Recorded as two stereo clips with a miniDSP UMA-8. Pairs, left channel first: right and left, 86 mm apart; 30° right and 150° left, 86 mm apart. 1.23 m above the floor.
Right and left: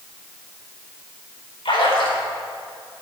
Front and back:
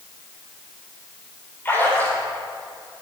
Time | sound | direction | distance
1.6 | a splash | 95° right | 5 m